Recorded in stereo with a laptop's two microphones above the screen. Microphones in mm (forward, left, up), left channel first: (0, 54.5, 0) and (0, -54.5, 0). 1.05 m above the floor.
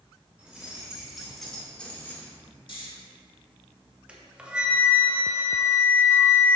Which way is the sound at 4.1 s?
10° right (ahead or behind).